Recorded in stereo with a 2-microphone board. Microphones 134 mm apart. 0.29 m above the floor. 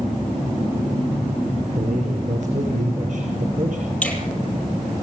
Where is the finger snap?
10° left (ahead or behind), 7.5 m.